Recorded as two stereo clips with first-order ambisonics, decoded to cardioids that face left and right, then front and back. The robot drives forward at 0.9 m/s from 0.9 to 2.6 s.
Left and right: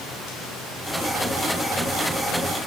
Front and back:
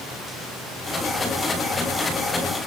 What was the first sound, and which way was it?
Only background noise.